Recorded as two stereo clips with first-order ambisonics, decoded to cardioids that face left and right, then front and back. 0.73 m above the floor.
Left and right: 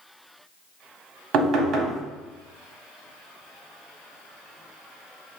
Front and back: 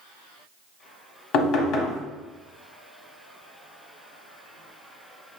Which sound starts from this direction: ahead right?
Knocking, at 1.3 s.